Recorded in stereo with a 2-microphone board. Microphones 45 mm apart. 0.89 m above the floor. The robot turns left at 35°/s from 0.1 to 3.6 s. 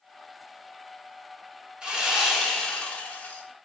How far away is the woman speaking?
I don't hear a woman speaking.